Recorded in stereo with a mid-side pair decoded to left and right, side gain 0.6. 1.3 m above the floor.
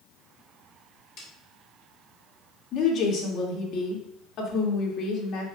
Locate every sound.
1.2 s a snare drum: 55° left, 3.5 m
2.7 s a woman speaking: 55° left, 2.5 m